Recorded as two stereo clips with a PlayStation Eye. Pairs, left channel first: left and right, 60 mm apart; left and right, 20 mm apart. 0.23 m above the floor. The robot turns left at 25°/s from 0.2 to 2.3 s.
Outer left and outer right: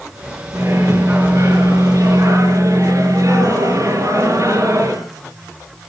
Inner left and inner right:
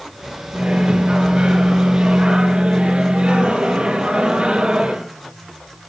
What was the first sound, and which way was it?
A microwave, 55° right.